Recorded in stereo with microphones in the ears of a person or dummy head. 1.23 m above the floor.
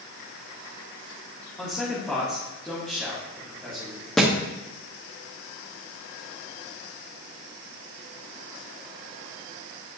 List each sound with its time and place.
1.6 s a man speaking: 5° left (ahead or behind), 1.7 m
4.2 s a thud: centre (ahead or behind), 0.9 m